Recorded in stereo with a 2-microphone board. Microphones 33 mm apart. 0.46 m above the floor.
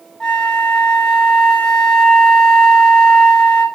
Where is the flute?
30° left (ahead or behind), 3 m.